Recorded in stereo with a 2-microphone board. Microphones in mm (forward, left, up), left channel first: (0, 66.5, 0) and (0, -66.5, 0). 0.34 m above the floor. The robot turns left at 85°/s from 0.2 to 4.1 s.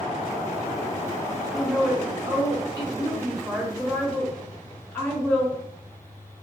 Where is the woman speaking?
10° left, 1.3 m; by 5.6 s 150° left, 1.3 m.